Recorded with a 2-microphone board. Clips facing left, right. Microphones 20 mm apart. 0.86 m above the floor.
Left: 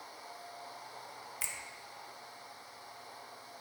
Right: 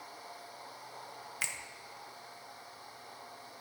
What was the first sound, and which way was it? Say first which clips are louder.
A finger snap: right 4 dB; 30° right (ahead or behind).